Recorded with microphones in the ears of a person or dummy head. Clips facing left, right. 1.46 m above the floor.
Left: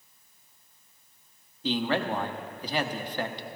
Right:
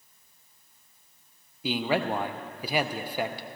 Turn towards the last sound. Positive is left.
turn(degrees=-10)  # may be behind; listen again after turning